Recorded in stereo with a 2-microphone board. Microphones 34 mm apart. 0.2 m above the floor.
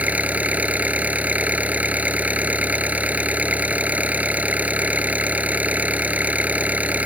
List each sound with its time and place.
0.0 s an engine running: 55° right (ahead or behind)